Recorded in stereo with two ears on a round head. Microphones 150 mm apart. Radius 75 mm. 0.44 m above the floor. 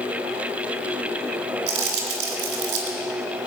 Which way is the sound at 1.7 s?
75° right (ahead or behind).